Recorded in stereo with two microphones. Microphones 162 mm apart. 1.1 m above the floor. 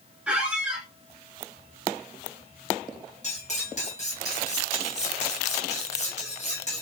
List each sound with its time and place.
0.3 s a squeak: 5° right (ahead or behind), 1.1 m
3.2 s cutlery clinking: 45° left (ahead or behind), 1.2 m